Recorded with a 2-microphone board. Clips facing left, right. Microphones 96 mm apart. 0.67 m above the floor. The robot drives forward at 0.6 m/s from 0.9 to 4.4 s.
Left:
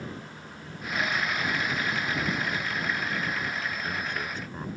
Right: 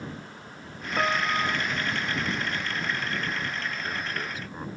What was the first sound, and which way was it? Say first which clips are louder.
A piano: right 4 dB; 80° right.